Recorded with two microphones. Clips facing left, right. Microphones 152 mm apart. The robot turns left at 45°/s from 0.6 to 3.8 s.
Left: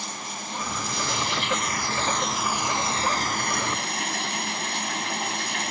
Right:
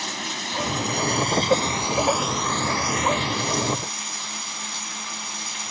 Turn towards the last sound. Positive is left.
turn(degrees=115)